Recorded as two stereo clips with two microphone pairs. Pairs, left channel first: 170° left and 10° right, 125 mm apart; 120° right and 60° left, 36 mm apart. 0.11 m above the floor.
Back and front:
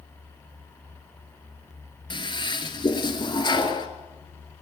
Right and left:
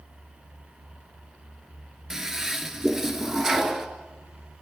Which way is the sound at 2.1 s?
140° left.